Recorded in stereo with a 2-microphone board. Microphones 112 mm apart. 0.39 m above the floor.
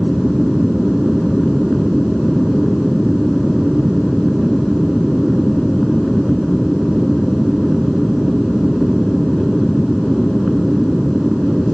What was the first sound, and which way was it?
An aircraft, centre (ahead or behind).